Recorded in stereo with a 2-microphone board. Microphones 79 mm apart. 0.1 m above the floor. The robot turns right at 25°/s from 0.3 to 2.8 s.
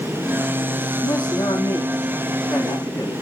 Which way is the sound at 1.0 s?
105° left.